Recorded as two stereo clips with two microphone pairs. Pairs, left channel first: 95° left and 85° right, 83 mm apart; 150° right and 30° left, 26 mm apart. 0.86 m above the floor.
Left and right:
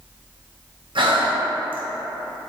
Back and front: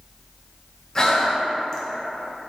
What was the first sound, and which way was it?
Breathing, 80° right.